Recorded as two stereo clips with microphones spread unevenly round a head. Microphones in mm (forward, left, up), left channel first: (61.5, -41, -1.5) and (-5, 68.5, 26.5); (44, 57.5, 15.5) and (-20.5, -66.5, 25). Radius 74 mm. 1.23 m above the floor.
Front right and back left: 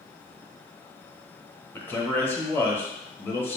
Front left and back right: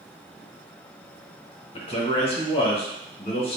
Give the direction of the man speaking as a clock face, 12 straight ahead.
11 o'clock.